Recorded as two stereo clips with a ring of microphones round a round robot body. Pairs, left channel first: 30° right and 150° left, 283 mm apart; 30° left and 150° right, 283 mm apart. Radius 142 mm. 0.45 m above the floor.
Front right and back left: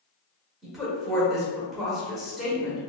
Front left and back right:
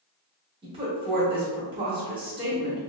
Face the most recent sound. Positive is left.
turn(degrees=-120)